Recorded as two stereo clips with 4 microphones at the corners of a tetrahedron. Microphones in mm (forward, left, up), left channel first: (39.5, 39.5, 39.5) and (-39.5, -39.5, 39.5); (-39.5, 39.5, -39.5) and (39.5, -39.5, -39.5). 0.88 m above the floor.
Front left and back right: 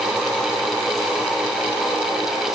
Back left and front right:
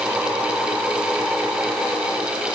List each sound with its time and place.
Only background noise.